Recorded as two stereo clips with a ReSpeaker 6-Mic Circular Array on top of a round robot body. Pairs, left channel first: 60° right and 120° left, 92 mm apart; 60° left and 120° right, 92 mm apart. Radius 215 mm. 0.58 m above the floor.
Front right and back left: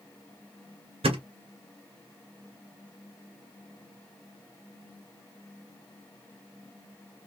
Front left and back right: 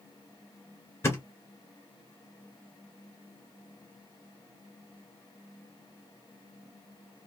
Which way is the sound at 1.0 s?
120° left.